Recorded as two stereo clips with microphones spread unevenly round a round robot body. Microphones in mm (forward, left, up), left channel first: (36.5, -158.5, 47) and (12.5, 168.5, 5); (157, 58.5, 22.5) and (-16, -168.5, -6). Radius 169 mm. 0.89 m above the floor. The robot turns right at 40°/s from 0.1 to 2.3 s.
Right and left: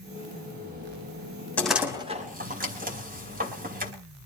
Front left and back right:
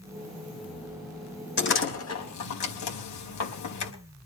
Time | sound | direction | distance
1.6 | a door slam | straight ahead | 5 m